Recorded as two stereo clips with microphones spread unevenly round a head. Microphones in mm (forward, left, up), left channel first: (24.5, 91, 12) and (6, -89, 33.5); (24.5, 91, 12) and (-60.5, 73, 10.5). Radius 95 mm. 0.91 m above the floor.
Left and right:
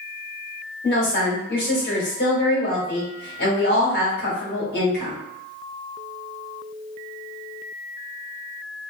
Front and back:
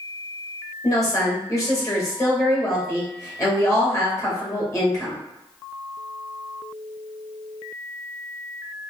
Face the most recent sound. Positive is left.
turn(degrees=65)